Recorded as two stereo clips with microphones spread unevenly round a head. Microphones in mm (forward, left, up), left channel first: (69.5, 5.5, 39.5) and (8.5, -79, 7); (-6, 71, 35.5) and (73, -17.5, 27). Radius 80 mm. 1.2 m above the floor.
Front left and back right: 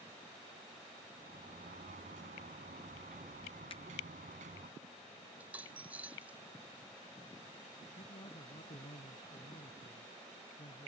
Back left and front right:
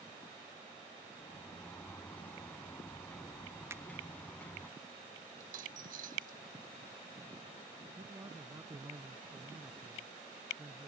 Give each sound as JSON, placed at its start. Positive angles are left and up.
{"t": 1.2, "sound": "a sliding door", "azimuth_deg": -150}
{"t": 3.7, "sound": "a finger snap", "azimuth_deg": 20}
{"t": 5.4, "sound": "a dropped coin", "azimuth_deg": -45}
{"t": 8.0, "sound": "a man speaking", "azimuth_deg": 20}